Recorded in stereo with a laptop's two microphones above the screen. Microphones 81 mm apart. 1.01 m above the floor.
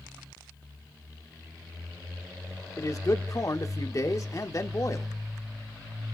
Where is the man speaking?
45° left (ahead or behind), 1.3 m.